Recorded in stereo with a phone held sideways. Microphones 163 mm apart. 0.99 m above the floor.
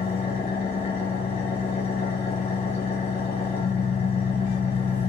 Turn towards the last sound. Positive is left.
turn(degrees=75)  # may be behind; listen again after turning